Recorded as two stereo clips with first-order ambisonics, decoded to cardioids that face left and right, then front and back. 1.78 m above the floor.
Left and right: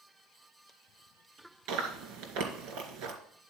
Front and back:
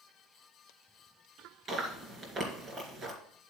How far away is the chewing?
About 2.5 m.